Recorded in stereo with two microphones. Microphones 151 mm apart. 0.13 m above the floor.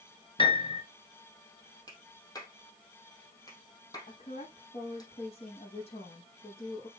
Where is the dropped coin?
No dropped coin in this recording.